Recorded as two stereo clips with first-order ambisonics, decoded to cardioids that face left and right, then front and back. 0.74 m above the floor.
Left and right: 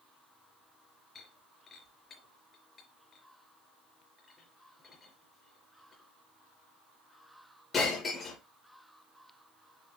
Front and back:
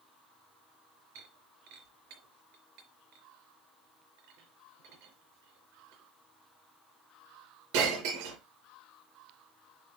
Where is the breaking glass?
160° left, 4.5 m.